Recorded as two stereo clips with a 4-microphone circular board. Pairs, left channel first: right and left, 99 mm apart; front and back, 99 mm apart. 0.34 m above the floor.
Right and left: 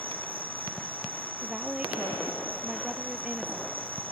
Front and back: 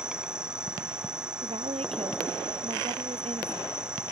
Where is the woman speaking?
170° left.